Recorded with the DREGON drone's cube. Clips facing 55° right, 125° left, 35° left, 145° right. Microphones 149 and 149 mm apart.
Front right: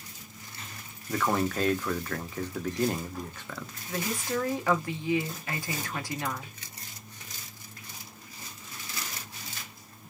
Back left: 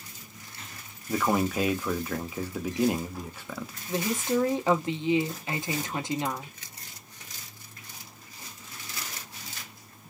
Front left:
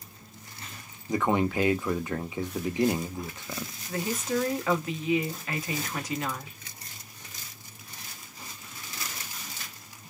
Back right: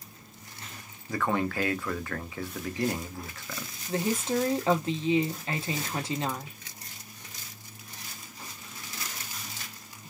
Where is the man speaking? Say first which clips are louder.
Back left 2 dB, front left 3 dB; 60° left, 0.5 m.